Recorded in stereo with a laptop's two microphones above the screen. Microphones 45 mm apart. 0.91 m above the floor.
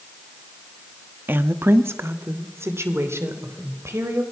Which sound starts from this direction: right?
A woman speaking, at 1.3 s.